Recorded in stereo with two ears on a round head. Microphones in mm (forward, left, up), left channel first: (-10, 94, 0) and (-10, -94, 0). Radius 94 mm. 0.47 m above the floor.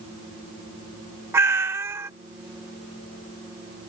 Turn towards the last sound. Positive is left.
turn(degrees=-10)  # may be behind; listen again after turning